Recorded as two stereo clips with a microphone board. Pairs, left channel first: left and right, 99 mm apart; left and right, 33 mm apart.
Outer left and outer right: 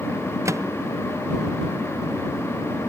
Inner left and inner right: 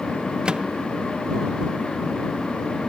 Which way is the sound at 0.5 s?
30° right (ahead or behind).